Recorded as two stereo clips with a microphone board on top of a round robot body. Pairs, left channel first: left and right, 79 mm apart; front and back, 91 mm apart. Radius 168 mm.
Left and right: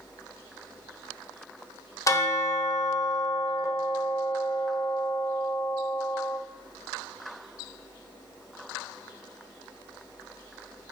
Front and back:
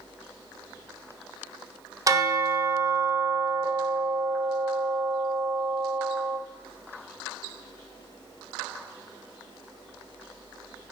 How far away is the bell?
About 1.3 m.